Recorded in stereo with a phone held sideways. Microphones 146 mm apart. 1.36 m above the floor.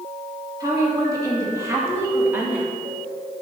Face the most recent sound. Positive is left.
turn(degrees=-10)  # may be behind; listen again after turning